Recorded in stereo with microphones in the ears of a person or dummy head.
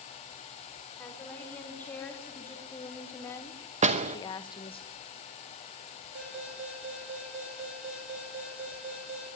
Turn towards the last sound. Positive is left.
turn(degrees=-60)  # may be behind; listen again after turning